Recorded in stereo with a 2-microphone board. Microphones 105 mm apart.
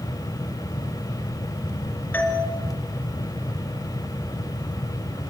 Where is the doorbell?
15° left (ahead or behind), 3 m.